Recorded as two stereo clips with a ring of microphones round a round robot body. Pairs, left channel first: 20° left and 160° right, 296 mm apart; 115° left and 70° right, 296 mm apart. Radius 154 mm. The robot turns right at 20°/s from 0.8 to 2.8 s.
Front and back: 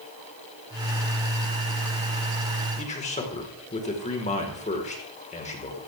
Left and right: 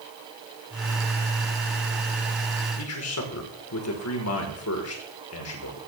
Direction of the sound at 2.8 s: 85° left.